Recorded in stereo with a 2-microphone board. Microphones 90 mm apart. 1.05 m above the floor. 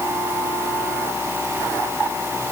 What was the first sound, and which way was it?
Only background noise.